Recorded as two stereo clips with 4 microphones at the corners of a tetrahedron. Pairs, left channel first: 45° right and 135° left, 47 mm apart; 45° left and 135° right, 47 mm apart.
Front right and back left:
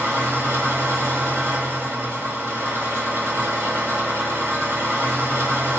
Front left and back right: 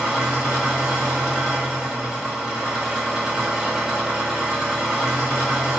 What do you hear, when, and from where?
0.0 s an engine running: 150° left, 1.4 m